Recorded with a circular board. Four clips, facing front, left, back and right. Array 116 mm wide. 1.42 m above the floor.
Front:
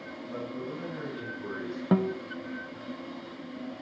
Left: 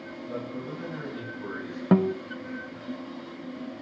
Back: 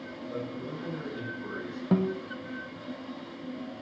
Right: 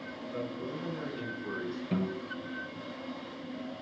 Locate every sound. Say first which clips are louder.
0.3 s a man speaking: left 2 dB, even; 100° left, 9.5 m; by 1.8 s 90° left, 11 m
1.9 s a guitar: left 12 dB, front 1 dB; 75° left, 1.0 m